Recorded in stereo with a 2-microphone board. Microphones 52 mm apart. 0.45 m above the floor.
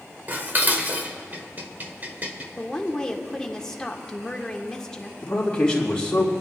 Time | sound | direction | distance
0.3 | dishes clattering | 35° right (ahead or behind) | 1.1 m
2.6 | a woman speaking | 10° left (ahead or behind) | 1.1 m
5.2 | a man speaking | 20° left (ahead or behind) | 3 m